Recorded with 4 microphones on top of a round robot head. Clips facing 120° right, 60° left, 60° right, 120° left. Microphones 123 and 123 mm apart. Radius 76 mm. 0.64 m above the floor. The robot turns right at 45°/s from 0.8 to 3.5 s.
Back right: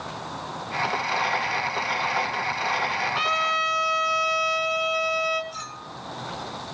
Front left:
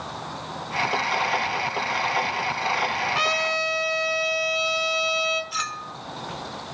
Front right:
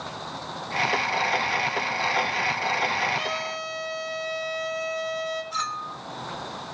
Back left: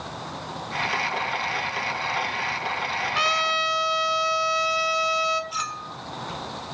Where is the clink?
40° left, 1.0 m.